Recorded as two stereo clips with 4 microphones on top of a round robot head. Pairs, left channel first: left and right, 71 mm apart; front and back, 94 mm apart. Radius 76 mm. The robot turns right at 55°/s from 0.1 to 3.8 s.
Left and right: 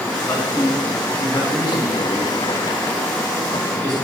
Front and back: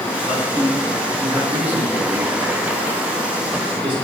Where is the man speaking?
30° left, 7.5 m; by 3.9 s 135° right, 7.5 m.